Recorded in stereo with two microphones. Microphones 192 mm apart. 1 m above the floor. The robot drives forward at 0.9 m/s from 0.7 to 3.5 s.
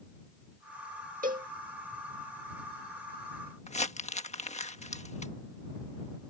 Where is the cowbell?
50° right (ahead or behind); by 1.5 s 45° right (ahead or behind).